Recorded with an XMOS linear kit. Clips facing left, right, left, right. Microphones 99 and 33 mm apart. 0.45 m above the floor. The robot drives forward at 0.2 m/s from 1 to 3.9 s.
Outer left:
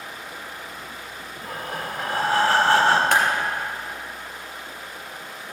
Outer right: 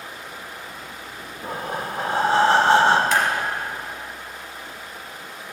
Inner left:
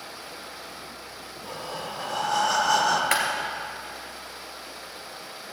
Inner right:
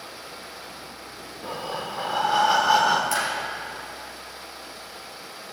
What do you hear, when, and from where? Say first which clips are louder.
1.4 s breathing: outer right 3 dB, inner right 4 dB; 25° right (ahead or behind), 0.7 m; by 3.0 s 20° right (ahead or behind), 0.9 m
3.1 s a clap: outer left 1 dB, inner left 1 dB; 55° left (ahead or behind), 2.5 m